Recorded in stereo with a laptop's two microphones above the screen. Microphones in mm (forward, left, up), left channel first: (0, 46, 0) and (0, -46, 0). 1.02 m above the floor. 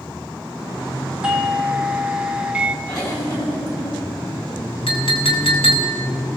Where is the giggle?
40° left (ahead or behind), 8.5 m.